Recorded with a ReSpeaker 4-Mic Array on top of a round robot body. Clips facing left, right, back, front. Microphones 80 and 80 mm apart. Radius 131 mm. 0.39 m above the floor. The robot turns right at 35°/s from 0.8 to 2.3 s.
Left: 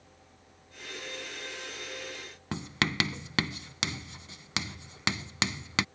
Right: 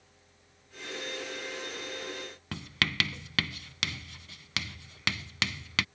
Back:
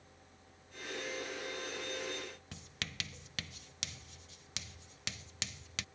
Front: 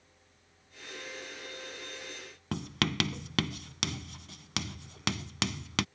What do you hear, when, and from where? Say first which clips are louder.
2.5 s writing: left 2 dB, front 15 dB; 20° left